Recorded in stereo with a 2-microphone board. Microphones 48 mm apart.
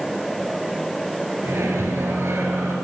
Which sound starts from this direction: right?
A microwave, at 1.4 s.